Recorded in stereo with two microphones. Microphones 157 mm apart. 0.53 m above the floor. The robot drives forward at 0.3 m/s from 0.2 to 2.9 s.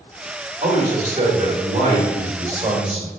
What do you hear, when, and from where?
0.6 s a man speaking: 60° right (ahead or behind), 1.5 m; by 3.1 s 50° right (ahead or behind), 1.7 m